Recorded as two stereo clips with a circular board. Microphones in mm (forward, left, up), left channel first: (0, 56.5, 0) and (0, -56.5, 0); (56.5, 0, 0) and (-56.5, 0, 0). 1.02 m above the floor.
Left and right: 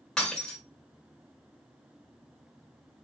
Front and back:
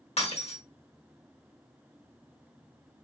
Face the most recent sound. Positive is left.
turn(degrees=5)